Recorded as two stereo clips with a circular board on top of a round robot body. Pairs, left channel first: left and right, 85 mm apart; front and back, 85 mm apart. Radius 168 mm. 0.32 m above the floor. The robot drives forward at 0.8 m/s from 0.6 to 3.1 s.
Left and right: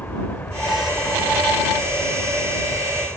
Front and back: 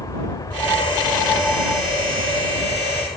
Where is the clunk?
No clunk in this recording.